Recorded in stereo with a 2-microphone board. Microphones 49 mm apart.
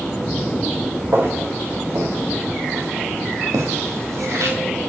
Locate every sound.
1.1 s footsteps: 50° right (ahead or behind), 2.5 m; by 4.6 s 80° right, 2.5 m